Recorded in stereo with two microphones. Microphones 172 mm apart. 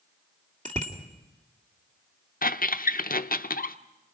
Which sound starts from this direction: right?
A bicycle bell, at 0.7 s.